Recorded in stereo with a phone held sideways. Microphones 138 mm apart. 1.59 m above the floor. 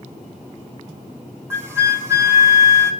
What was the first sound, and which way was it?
A flute, 20° right (ahead or behind).